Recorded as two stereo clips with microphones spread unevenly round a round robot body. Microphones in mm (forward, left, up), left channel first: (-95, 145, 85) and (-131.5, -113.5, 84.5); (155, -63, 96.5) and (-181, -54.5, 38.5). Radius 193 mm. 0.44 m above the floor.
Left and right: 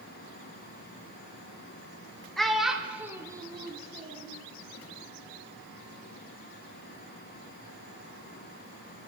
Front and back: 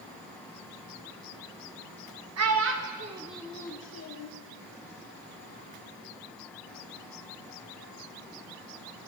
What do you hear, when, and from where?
2.4 s a child speaking: 170° left, 1.1 m; by 4.3 s 30° right, 1.0 m